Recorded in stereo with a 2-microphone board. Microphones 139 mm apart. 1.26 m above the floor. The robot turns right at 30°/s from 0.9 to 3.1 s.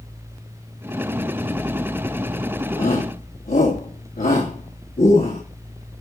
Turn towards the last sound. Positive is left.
turn(degrees=85)